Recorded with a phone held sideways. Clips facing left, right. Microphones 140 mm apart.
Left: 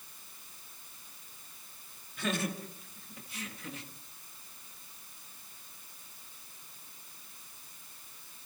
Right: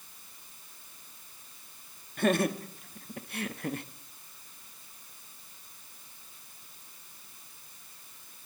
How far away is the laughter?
About 2.5 m.